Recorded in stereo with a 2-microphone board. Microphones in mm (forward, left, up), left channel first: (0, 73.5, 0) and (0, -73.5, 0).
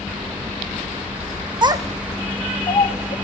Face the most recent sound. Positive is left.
turn(degrees=55)  # may be behind; listen again after turning